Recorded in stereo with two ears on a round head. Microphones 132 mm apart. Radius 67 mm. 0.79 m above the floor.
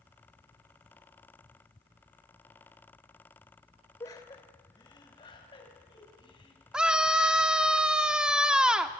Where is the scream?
5° right (ahead or behind), 1.7 m.